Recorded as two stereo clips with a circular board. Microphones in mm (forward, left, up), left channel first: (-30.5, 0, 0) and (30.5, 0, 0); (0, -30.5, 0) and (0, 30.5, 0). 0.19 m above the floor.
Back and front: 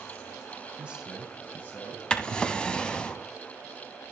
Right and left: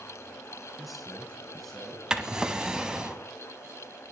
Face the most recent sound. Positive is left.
turn(degrees=140)